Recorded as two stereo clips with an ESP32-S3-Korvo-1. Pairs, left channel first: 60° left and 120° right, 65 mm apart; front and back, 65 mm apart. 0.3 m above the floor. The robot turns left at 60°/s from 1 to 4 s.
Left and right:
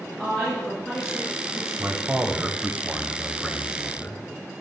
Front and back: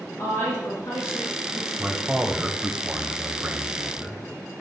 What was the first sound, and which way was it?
A woman speaking, 25° right.